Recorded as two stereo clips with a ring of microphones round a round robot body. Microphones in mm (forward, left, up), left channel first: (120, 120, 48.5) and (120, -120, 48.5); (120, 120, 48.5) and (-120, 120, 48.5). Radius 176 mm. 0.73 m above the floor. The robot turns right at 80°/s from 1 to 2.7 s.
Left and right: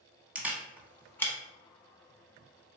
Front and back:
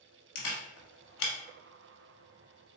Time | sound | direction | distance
0.3 | a camera shutter | 5° right | 0.9 m